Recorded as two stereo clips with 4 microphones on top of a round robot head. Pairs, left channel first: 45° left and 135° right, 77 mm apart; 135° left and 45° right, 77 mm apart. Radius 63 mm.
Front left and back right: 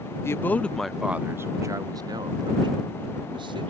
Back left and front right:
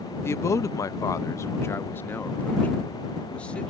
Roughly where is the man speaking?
Left.